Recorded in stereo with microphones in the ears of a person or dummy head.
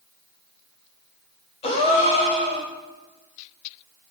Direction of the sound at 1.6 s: 30° left (ahead or behind).